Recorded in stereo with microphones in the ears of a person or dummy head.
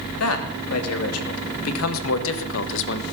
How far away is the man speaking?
About 3 m.